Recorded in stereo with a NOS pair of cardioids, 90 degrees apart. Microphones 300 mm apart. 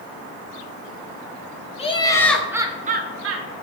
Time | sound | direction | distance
1.8 | laughter | 20° left | 0.8 m